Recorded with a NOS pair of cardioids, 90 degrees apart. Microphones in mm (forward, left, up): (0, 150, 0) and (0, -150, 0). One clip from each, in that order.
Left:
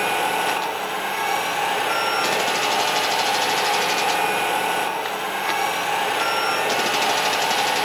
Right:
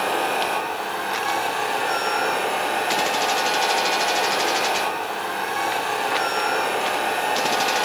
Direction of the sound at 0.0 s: 25° left.